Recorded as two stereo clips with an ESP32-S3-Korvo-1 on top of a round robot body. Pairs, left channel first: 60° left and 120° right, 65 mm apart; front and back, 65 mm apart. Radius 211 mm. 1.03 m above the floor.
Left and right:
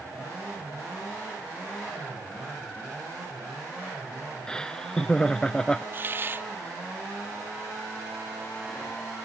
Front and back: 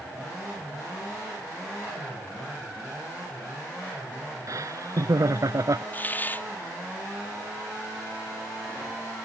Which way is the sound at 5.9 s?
65° right.